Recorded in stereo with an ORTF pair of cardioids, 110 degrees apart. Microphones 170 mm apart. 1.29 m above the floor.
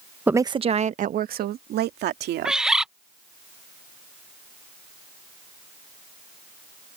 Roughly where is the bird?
Ahead.